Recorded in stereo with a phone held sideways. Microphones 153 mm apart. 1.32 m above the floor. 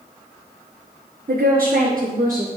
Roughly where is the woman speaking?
Right.